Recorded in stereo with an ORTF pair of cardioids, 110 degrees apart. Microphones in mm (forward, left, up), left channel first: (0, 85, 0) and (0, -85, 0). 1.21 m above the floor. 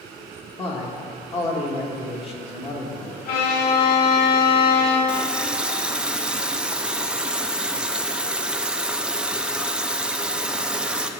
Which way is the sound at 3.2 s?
70° left.